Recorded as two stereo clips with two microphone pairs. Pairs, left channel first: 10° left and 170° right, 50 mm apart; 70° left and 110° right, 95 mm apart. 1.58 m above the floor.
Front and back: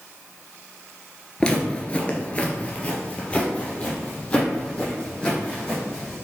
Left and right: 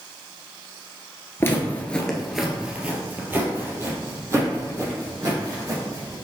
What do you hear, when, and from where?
1.4 s footsteps: 55° left, 1.7 m; by 6.1 s 60° right, 5.5 m